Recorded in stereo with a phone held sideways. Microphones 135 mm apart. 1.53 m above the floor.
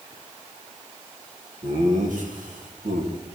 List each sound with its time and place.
1.6 s laughter: 60° right (ahead or behind), 1.7 m; by 3.1 s 80° right, 2.5 m